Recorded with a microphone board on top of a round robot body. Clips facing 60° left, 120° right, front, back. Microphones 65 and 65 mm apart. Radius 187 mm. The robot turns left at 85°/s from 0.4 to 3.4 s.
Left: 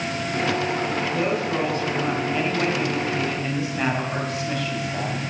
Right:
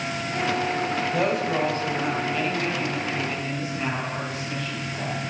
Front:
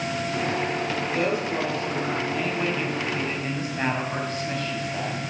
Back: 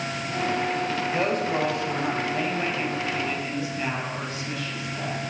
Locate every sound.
1.1 s a woman speaking: 120° right, 4 m; by 5.2 s 50° left, 4 m